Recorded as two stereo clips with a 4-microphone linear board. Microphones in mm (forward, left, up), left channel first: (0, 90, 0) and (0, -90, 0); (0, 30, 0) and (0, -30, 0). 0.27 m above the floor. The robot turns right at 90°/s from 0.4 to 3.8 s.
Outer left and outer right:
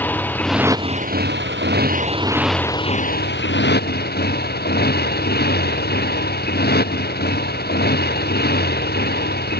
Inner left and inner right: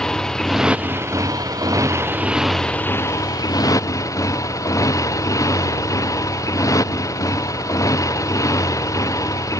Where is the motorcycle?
170° left; by 9.6 s 115° left.